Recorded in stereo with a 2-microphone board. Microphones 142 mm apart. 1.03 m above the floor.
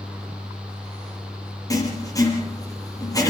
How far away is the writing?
About 6 m.